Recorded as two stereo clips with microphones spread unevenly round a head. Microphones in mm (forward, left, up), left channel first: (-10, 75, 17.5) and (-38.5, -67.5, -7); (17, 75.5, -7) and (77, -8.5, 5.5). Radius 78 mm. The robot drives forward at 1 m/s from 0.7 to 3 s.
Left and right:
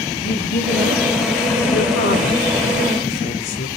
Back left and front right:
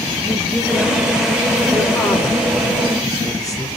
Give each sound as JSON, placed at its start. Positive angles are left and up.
{"t": 0.2, "sound": "a woman speaking", "azimuth_deg": 40, "distance_m": 4.5}